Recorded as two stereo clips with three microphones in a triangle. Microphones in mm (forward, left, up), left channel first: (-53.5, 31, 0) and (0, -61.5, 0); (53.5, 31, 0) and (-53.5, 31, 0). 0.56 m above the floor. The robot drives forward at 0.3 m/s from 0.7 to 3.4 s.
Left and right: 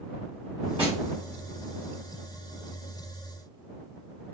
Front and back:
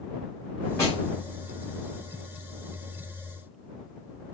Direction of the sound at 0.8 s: 60° right.